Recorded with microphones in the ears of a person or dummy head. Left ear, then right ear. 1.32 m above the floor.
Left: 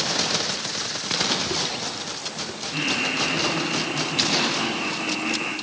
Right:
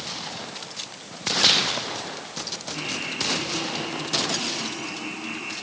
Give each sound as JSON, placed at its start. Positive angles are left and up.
{"t": 2.7, "sound": "laughter", "side_deg": 55, "distance_m": 8.5}